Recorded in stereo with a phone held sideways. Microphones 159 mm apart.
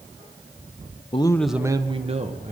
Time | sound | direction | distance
1.1 | a man speaking | 35° left (ahead or behind) | 0.8 m